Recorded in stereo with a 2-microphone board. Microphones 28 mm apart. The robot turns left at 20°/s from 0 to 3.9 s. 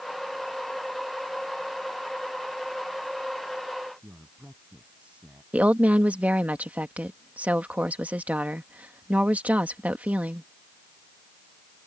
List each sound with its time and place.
4.0 s a man speaking: 50° right (ahead or behind)
5.5 s a woman speaking: 60° right (ahead or behind)